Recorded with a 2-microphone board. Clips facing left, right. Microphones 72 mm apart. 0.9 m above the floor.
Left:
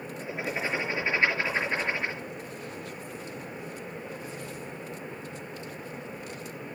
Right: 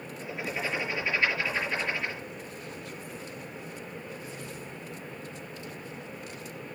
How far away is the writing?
About 5.5 m.